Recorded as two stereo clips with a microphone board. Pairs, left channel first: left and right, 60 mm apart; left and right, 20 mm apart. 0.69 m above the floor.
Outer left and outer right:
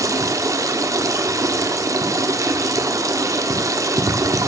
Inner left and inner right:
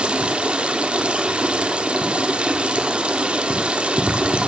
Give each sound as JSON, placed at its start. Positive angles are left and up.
{"t": 0.0, "sound": "running water", "side_deg": -70, "distance_m": 1.1}